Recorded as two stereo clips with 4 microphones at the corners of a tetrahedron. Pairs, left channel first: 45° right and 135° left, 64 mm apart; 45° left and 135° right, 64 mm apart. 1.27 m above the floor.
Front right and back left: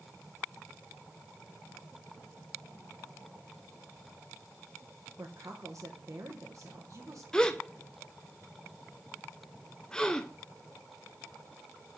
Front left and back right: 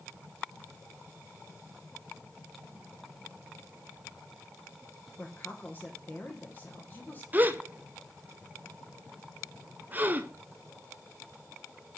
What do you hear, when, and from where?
5.2 s a woman speaking: 105° left, 1.2 m
7.3 s a gasp: 115° right, 0.5 m